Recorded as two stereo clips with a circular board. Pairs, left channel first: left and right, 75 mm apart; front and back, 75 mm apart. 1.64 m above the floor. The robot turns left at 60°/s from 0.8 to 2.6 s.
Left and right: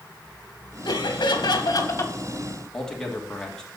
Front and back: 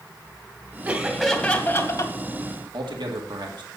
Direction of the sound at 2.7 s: 170° left.